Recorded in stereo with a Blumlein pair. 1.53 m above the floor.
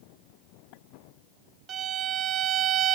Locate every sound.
1.7 s a violin: 30° right, 0.6 m